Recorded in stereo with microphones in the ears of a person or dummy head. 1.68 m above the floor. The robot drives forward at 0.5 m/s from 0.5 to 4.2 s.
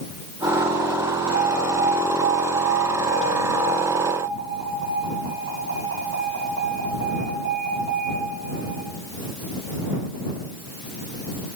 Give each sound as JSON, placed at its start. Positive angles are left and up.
{"t": 1.3, "sound": "an alarm", "side_deg": -80, "distance_m": 9.5}